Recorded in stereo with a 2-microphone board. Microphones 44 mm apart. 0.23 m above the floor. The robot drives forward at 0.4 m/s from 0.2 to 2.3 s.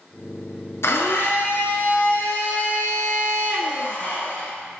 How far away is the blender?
About 0.6 m.